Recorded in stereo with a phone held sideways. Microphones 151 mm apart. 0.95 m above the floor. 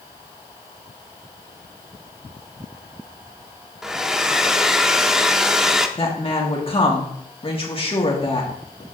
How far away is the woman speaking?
About 2.0 m.